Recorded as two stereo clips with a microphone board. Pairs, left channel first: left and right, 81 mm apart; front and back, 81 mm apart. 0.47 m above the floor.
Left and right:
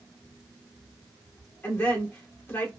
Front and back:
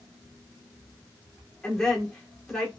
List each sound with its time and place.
1.6 s a woman speaking: 80° left, 1.3 m